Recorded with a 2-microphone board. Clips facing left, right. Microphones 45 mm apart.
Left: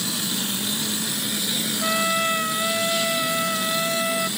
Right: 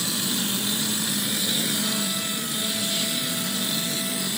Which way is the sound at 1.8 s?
50° left (ahead or behind).